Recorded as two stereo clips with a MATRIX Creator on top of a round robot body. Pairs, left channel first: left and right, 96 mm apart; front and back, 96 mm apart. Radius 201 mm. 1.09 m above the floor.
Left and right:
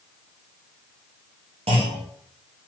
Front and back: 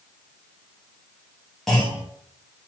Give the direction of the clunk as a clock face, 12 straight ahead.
3 o'clock.